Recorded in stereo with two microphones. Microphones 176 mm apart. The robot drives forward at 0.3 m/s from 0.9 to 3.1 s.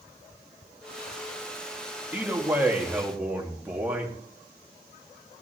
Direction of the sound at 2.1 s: 10° right (ahead or behind).